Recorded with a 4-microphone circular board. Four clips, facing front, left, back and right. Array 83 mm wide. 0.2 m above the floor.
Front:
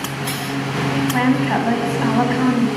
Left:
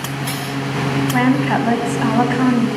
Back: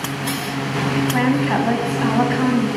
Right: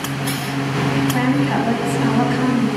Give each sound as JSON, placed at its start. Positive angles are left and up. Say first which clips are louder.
{"t": 1.1, "sound": "a woman speaking", "louder": "left 2 dB, front 1 dB", "azimuth_deg": 90, "distance_m": 1.1}